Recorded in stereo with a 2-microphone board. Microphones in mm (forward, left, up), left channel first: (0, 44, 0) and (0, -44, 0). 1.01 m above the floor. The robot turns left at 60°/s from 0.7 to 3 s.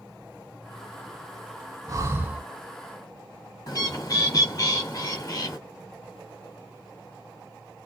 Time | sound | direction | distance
1.9 | breathing | 135° right | 0.7 m
3.7 | a bird | 45° left (ahead or behind) | 1.8 m